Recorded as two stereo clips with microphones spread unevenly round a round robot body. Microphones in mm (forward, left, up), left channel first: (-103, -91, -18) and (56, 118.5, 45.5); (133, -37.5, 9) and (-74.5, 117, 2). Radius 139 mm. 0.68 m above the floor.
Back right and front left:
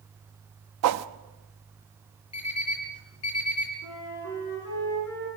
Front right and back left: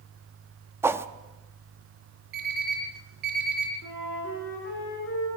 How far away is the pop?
I don't hear a pop.